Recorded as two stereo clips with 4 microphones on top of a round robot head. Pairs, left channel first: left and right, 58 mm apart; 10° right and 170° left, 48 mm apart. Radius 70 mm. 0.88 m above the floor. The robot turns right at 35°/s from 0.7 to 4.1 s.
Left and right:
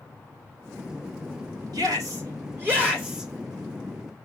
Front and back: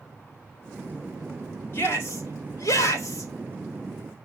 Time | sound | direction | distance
1.7 | a shout | 65° right | 3 m